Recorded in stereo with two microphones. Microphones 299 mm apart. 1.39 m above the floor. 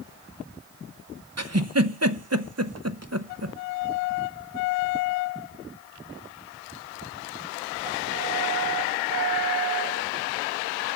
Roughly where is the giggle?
Right.